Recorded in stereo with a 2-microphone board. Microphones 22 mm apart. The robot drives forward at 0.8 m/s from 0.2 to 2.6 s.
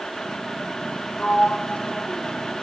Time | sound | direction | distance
1.2 | a sliding door | 75° left (ahead or behind) | 0.9 m